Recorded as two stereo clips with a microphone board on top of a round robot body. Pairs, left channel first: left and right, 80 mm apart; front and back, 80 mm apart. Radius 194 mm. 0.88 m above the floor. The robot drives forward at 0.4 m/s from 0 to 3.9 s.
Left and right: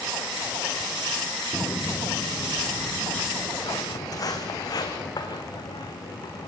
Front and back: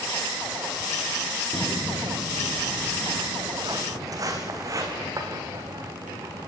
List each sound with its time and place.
1.5 s footsteps: 155° left, 0.9 m; by 6.5 s 125° left, 5.5 m